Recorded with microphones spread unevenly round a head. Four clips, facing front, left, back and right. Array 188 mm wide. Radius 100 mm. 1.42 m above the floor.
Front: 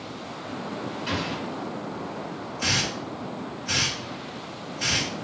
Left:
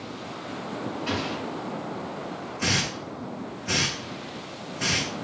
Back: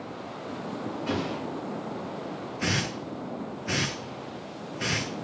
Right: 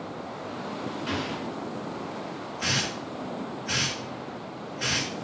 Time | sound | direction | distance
1.1 | an explosion | 160° left | 1.6 m
2.6 | a hiss | 135° left | 1.0 m